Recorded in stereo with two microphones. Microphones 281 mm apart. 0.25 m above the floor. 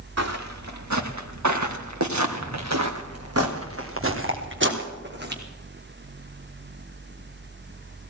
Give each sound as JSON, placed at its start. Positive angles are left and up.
{"t": 0.2, "sound": "footsteps", "side_deg": -65, "distance_m": 2.5}